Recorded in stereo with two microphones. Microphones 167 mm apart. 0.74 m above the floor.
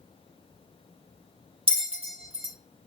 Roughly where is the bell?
Right.